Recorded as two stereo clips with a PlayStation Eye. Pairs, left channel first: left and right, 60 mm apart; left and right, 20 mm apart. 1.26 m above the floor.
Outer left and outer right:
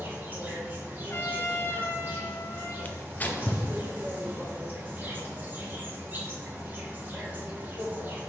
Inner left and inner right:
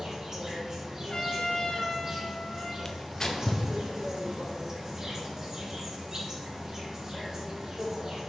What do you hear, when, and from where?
0.0 s an insect: 35° right (ahead or behind), 1.5 m
1.1 s a trumpet: 45° left (ahead or behind), 1.1 m
2.9 s tearing paper: 25° left (ahead or behind), 0.6 m